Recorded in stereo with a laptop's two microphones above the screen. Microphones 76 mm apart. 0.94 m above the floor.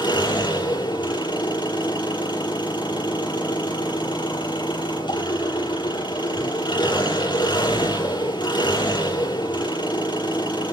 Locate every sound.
0.0 s an engine running: 85° left, 8.5 m